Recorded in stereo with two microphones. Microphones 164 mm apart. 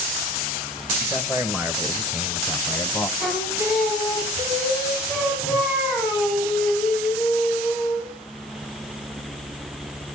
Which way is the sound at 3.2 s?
15° right (ahead or behind).